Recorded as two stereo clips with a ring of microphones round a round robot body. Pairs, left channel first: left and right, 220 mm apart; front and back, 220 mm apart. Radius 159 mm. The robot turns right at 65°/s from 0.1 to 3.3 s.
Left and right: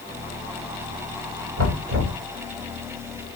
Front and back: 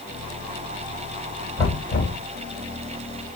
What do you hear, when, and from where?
1.6 s knocking: 85° right, 1.9 m; by 2.2 s 45° right, 1.9 m